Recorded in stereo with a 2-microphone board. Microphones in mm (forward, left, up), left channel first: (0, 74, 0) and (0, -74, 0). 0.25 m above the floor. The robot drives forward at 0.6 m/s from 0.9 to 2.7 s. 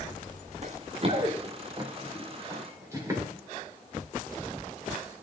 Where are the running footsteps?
50° right (ahead or behind), 1.0 m; by 3.2 s 20° right (ahead or behind), 4 m.